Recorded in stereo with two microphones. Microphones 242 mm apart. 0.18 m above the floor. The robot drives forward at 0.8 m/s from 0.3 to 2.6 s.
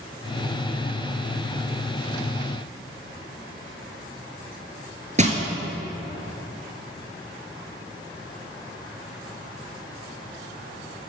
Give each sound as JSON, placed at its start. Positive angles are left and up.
{"t": 5.2, "sound": "crushing", "side_deg": -30, "distance_m": 1.1}